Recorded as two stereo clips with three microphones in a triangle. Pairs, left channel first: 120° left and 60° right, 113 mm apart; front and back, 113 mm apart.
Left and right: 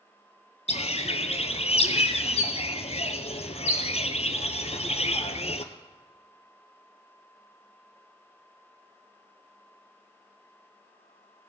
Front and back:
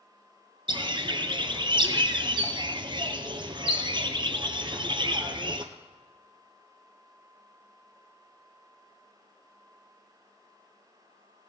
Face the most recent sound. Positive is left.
turn(degrees=140)